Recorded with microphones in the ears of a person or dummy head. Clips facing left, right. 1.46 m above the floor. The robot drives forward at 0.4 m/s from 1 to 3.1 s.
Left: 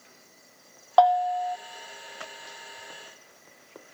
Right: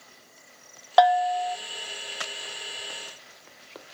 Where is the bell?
15° right (ahead or behind), 0.6 m.